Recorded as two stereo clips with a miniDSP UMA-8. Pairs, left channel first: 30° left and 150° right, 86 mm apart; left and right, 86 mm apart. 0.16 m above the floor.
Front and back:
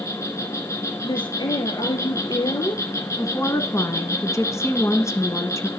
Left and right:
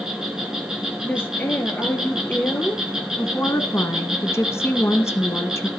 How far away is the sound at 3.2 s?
About 1.9 m.